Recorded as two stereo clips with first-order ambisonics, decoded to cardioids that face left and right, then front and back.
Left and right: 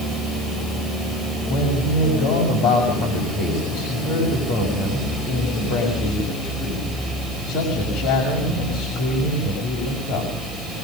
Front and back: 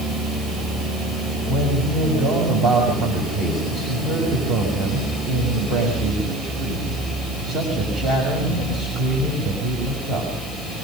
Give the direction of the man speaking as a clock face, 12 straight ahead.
8 o'clock.